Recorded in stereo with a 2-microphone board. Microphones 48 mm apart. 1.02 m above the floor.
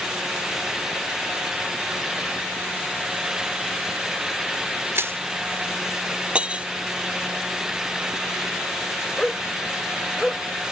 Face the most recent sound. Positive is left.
turn(degrees=15)  # may be behind; listen again after turning